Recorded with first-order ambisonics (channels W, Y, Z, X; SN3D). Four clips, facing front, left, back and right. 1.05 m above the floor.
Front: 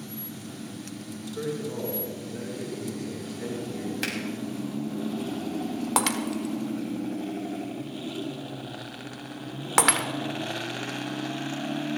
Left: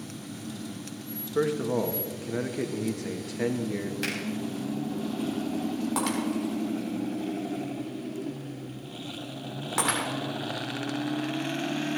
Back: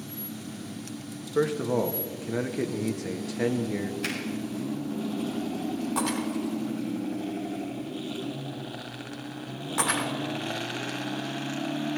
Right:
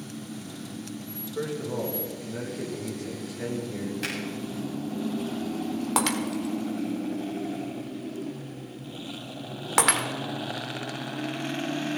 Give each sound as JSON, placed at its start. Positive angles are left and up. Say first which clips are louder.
{"t": 1.4, "sound": "a man speaking", "louder": "left 5 dB, back 7 dB", "azimuth_deg": 150, "distance_m": 1.4}
{"t": 4.0, "sound": "a finger snap", "louder": "left 1 dB, front 3 dB", "azimuth_deg": 10, "distance_m": 6.5}
{"t": 6.0, "sound": "breaking glass", "louder": "right 3 dB, front 4 dB", "azimuth_deg": -30, "distance_m": 1.5}